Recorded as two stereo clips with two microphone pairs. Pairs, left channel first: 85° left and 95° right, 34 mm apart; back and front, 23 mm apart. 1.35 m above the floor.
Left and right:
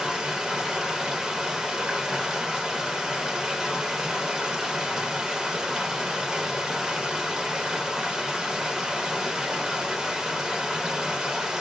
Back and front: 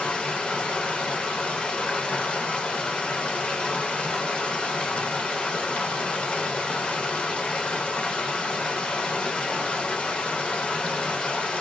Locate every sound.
0.0 s running water: 165° right, 0.9 m